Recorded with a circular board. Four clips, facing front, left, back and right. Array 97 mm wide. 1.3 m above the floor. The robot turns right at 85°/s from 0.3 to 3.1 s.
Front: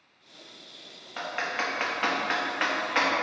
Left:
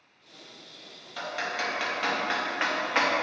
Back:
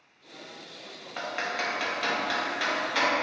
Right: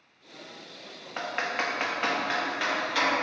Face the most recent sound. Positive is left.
turn(degrees=65)